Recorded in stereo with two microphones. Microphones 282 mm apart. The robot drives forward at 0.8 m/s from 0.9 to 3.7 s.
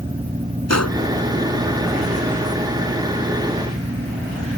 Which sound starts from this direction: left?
A gunshot, at 0.7 s.